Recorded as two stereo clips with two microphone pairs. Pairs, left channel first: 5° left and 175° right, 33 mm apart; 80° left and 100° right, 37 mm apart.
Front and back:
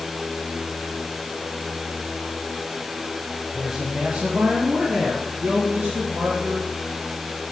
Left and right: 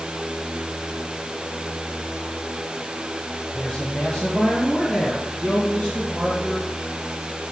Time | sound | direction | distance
3.5 | a man speaking | 105° left | 1.0 m